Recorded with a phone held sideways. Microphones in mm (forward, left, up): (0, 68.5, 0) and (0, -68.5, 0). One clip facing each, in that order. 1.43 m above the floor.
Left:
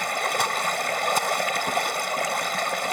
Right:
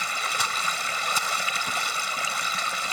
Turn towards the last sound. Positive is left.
turn(degrees=55)  # may be behind; listen again after turning